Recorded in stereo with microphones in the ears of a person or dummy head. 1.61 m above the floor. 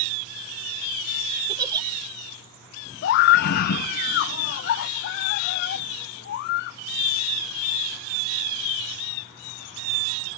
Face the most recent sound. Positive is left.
turn(degrees=45)  # may be behind; listen again after turning